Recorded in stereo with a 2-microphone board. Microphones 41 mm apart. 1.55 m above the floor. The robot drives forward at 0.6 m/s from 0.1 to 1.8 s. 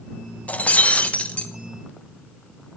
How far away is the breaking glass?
About 0.7 m.